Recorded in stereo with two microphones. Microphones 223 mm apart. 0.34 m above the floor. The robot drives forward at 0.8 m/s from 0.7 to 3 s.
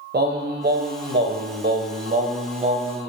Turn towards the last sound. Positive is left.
turn(degrees=-25)  # may be behind; listen again after turning